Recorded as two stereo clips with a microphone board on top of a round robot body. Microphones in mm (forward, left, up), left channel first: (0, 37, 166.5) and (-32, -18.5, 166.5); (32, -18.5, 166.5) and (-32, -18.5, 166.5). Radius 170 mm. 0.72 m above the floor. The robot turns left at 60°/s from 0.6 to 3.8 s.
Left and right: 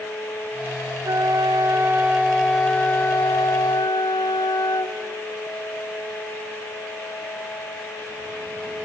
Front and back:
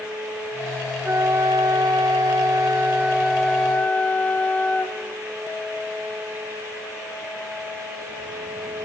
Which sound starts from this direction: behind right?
A flute, at 1.0 s.